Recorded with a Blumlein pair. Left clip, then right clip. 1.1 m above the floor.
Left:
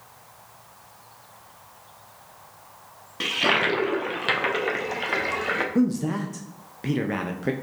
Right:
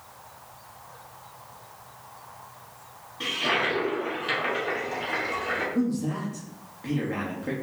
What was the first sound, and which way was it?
A toilet flushing, 55° left.